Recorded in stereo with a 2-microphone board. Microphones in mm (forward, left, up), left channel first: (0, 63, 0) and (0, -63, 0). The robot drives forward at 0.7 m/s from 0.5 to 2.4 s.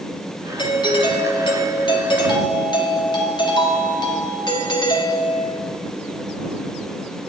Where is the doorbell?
35° left (ahead or behind), 1.5 m.